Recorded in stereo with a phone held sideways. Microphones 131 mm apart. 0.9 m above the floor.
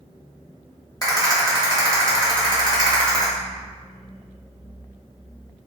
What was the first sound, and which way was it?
A rattle, 30° left (ahead or behind).